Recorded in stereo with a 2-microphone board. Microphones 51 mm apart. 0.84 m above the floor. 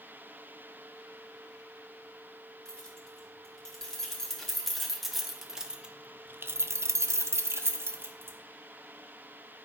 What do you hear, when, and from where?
2.6 s keys jangling: 15° left (ahead or behind), 2.5 m; by 8.4 s 45° right (ahead or behind), 1.3 m